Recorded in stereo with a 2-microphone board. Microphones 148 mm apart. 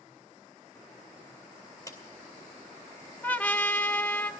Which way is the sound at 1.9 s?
20° left (ahead or behind).